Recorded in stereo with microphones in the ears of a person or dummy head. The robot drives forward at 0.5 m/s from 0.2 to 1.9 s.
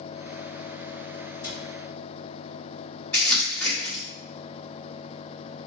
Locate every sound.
1.4 s a cupboard door: 15° left (ahead or behind), 1.1 m
3.1 s crumpling: centre (ahead or behind), 1.3 m